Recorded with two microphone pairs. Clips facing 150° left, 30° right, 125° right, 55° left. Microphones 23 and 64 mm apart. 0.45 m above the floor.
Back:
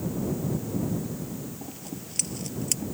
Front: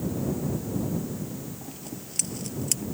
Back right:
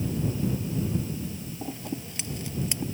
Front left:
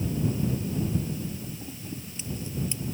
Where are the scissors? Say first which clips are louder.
Back 1 dB, back right 5 dB; 125° right.